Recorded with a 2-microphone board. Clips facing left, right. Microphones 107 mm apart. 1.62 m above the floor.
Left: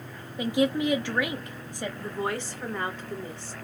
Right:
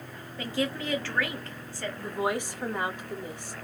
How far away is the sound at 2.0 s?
About 0.8 m.